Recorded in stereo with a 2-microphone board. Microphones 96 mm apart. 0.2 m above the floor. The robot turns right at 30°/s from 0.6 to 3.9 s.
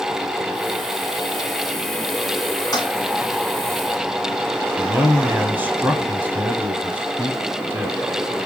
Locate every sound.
2.7 s a toilet flushing: 45° left (ahead or behind), 1.8 m; by 2.9 s 40° left (ahead or behind), 1.8 m
4.8 s a man speaking: 20° right (ahead or behind), 1.0 m